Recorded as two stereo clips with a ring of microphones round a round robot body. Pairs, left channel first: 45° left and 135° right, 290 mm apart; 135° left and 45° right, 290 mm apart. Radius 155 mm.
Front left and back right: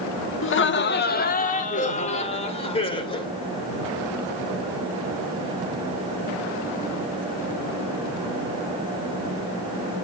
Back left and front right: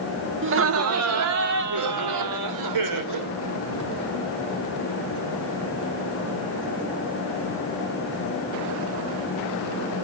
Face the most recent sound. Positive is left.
turn(degrees=-30)